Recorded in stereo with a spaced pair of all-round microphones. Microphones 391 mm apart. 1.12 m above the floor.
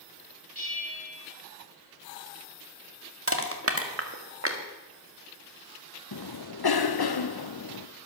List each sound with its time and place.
0.6 s a bell: 60° right (ahead or behind), 4.5 m
3.3 s crushing: 35° right (ahead or behind), 1.5 m
6.1 s a cough: 70° left (ahead or behind), 0.6 m